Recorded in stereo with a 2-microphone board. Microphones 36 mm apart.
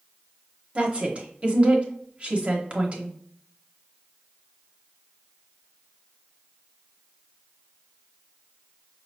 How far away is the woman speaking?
About 0.9 m.